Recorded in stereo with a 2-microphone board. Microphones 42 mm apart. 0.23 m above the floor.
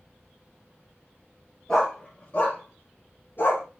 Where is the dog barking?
15° left (ahead or behind), 1.5 m; by 3.6 s 55° left (ahead or behind), 1.5 m.